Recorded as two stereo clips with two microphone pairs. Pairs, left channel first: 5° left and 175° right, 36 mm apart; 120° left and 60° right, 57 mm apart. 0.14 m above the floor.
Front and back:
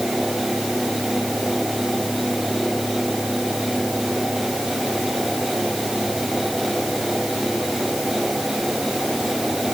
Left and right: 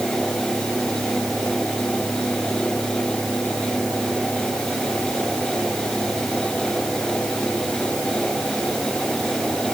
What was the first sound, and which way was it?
Only background noise.